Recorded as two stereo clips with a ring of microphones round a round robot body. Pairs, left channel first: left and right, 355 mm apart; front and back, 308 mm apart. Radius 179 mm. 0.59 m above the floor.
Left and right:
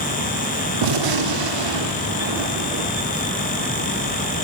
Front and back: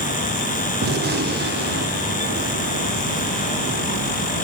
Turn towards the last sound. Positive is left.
turn(degrees=-115)